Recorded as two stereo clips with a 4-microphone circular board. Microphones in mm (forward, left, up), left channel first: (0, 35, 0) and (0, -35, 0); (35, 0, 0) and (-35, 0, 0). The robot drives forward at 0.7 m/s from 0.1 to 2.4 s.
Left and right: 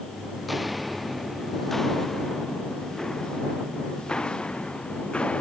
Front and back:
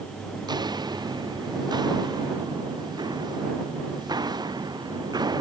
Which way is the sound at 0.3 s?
175° right.